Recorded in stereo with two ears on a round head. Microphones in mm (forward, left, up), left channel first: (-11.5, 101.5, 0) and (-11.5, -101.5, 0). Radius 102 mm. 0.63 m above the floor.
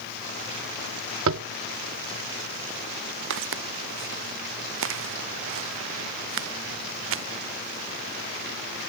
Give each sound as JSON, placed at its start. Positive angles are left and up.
{"t": 1.3, "sound": "tapping", "side_deg": -60}
{"t": 3.3, "sound": "footsteps", "side_deg": -65}